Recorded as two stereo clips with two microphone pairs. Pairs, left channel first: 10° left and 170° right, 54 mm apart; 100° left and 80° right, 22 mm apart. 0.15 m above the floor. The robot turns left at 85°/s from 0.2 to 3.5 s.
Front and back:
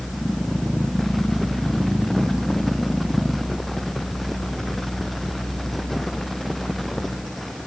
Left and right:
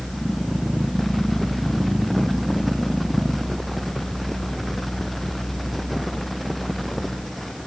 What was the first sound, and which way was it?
Only background noise.